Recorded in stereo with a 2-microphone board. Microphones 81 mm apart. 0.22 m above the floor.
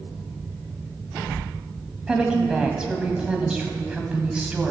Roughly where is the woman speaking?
Centre.